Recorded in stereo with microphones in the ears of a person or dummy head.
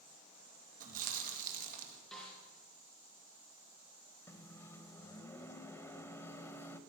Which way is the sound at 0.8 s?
55° right (ahead or behind).